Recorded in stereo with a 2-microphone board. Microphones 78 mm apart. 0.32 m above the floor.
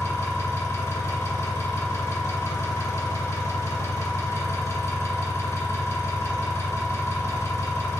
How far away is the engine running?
About 1.2 m.